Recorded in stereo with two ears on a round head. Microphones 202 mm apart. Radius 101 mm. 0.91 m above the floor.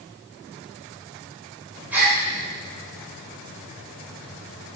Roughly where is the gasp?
Centre.